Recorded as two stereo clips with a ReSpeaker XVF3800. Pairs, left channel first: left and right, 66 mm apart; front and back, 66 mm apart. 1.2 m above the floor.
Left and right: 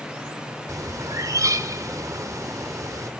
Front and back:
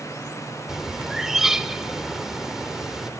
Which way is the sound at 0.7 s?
95° right.